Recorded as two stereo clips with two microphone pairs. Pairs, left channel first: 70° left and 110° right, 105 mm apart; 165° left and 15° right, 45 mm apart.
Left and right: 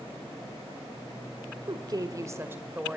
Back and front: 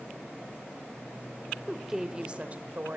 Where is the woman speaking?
105° right, 1.6 m; by 3.0 s 30° right, 1.8 m.